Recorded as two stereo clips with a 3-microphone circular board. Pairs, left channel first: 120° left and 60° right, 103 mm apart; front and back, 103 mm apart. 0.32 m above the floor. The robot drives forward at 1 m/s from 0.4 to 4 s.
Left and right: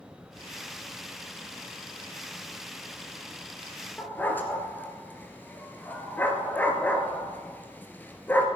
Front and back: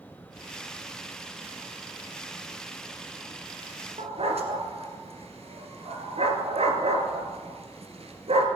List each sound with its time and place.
4.0 s a dog barking: 170° right, 2.0 m